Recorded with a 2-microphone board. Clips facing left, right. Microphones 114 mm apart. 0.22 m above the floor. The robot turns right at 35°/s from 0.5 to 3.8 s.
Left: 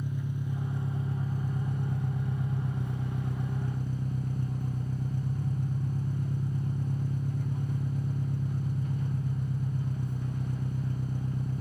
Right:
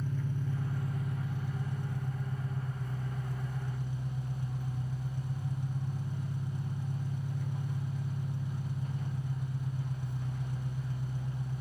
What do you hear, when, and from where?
0.0 s an engine running: 15° left, 1.0 m; by 11.6 s 130° left, 1.0 m